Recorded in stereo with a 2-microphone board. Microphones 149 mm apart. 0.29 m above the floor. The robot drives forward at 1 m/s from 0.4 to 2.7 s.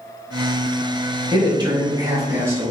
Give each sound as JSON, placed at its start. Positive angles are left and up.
{"t": 1.3, "sound": "a man speaking", "side_deg": -35, "distance_m": 1.0}